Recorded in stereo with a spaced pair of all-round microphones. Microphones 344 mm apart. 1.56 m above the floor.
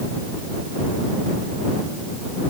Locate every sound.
Only background noise.